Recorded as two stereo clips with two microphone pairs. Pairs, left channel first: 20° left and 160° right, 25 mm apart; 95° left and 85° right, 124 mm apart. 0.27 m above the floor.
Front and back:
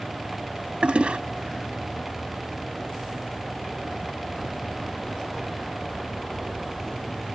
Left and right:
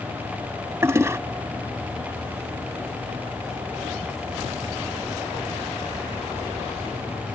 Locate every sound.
0.8 s a toilet flushing: 150° right